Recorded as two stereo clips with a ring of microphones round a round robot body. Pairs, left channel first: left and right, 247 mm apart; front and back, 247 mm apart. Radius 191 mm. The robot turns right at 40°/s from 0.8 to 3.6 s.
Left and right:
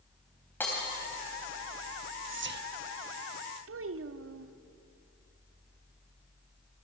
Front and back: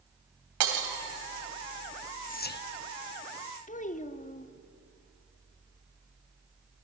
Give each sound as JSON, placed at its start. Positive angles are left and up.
{"t": 0.6, "sound": "breaking glass", "azimuth_deg": 175, "distance_m": 3.0}
{"t": 2.3, "sound": "whispering", "azimuth_deg": -55, "distance_m": 1.2}
{"t": 3.7, "sound": "a child speaking", "azimuth_deg": -60, "distance_m": 1.4}